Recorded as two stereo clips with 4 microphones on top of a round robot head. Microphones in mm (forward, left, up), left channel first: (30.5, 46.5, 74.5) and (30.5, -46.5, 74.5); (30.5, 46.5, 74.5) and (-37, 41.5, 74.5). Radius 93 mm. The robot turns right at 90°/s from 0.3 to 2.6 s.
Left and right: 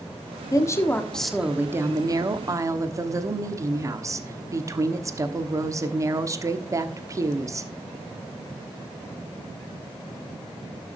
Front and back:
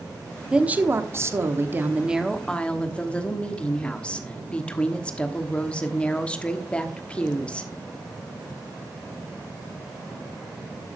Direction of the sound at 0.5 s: 110° left.